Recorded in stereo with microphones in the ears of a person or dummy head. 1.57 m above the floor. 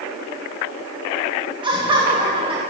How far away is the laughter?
About 2 m.